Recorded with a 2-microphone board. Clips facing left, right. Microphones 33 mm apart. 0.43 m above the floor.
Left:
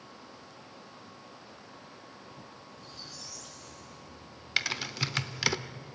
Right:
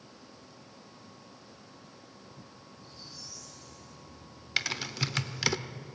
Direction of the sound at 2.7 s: 80° left.